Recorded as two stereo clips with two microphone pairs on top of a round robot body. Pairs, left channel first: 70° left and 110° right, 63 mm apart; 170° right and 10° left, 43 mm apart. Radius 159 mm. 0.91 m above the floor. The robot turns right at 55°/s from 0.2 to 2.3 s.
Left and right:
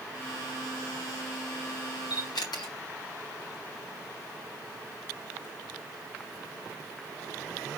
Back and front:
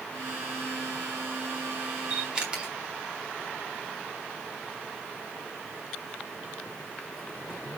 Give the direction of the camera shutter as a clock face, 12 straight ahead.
10 o'clock.